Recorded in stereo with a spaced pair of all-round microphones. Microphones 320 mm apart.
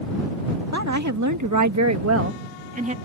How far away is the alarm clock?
No alarm clock in this recording.